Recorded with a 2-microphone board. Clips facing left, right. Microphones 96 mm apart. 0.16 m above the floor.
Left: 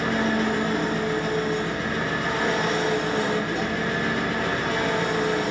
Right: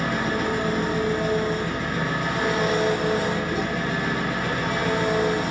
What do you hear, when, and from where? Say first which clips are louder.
0.0 s an engine running: left 1 dB; 10° right (ahead or behind), 1.3 m